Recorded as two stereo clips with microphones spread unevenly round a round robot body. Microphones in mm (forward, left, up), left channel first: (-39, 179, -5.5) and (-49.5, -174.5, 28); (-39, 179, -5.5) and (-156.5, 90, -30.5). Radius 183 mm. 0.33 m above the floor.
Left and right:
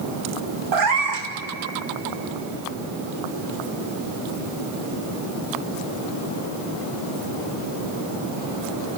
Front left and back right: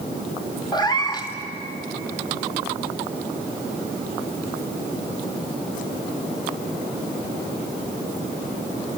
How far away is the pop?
I don't hear a pop.